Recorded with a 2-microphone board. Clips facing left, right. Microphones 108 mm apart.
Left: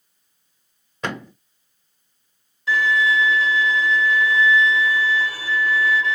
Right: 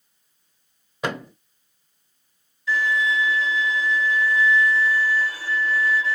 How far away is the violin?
About 3 m.